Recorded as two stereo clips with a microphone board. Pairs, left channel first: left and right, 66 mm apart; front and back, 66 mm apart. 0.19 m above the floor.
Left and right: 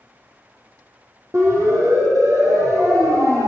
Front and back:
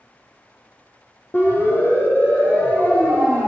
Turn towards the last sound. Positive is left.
turn(degrees=-70)